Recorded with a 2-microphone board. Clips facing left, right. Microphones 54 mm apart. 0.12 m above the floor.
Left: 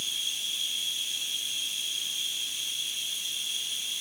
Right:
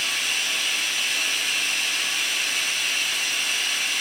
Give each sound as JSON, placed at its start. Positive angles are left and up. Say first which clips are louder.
{"t": 0.0, "sound": "running water", "louder": "right 10 dB", "side_deg": -80}